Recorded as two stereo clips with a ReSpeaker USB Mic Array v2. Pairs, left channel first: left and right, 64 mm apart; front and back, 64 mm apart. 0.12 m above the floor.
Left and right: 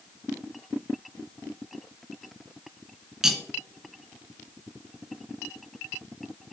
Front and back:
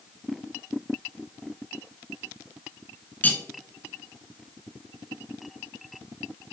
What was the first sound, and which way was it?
Cutlery clinking, 15° right.